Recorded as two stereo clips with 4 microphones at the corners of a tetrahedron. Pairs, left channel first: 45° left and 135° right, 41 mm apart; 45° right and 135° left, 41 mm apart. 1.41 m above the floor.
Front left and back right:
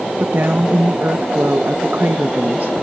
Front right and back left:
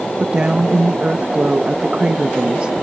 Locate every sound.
0.2 s a woman speaking: 165° right